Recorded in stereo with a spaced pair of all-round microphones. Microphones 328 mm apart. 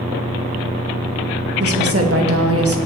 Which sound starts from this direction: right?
A woman speaking, at 1.6 s.